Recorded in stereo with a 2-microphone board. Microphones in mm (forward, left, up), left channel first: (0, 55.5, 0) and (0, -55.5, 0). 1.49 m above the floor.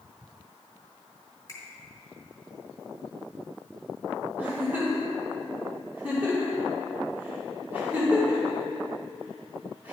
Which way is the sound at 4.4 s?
15° right (ahead or behind).